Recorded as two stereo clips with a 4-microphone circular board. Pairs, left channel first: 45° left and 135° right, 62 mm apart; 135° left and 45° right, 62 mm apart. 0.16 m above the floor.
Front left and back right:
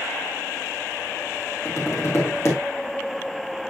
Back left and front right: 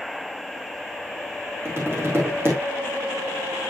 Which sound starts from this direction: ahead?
Tapping, at 1.6 s.